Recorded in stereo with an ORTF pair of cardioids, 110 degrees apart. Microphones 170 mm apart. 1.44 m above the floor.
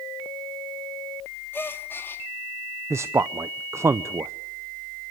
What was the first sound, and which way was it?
A gasp, 15° left.